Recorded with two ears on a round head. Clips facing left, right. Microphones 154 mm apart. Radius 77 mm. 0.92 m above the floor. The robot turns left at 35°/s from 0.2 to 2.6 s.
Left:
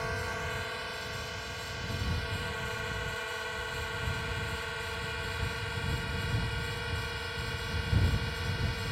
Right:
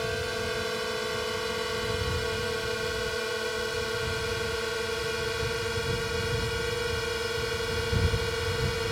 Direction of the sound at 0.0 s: 40° right (ahead or behind).